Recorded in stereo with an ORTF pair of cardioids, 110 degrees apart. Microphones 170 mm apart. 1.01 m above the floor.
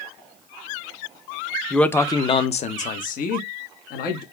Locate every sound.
1.7 s a man speaking: straight ahead, 0.5 m; by 4.2 s 70° left, 1.5 m